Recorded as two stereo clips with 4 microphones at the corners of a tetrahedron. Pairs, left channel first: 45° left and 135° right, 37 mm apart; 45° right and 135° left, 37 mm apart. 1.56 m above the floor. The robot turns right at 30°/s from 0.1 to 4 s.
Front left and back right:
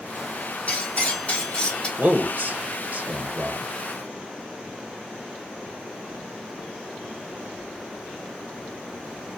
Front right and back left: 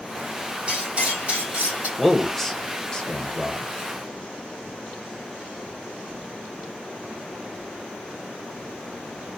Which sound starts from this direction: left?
Cutlery clinking, at 0.7 s.